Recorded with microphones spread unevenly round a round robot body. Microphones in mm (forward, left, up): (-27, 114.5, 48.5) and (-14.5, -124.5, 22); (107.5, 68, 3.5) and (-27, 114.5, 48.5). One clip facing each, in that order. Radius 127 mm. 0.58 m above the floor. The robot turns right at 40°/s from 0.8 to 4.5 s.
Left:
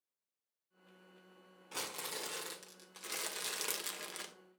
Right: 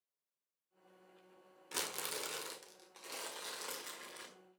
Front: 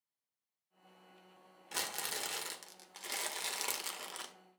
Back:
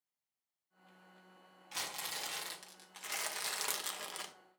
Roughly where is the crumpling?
Ahead right.